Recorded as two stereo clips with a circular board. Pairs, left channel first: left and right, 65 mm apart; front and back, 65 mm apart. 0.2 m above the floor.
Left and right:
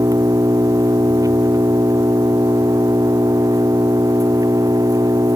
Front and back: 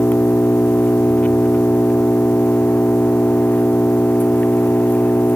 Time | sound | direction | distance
0.0 | an engine running | 65° right | ?